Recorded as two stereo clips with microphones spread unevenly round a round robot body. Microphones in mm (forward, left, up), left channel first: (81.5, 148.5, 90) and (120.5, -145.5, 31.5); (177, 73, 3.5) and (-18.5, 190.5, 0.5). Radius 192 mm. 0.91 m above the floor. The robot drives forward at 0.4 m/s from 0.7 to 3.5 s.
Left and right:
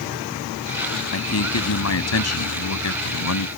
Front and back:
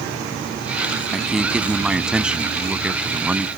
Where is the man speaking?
60° left; by 3.5 s 65° left.